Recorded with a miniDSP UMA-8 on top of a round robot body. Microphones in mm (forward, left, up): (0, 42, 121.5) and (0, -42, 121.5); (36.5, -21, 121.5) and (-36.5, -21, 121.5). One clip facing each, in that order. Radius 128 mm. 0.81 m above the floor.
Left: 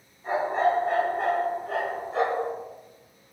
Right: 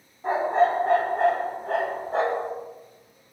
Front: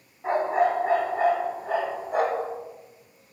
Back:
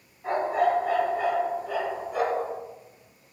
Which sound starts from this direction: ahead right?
A dog barking, at 0.2 s.